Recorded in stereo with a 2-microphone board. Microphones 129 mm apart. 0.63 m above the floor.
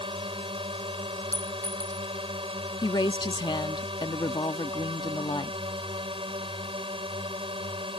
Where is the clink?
25° right (ahead or behind).